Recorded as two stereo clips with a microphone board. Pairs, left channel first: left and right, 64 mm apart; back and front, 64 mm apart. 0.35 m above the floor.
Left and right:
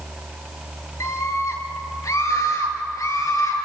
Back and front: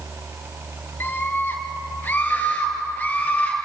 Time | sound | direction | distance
1.0 | a scream | 125° left | 5.5 m